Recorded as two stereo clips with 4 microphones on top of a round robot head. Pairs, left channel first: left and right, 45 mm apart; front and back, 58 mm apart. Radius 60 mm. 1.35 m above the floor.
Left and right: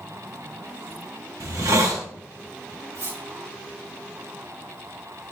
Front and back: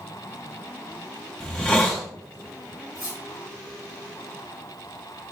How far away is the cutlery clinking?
About 6 m.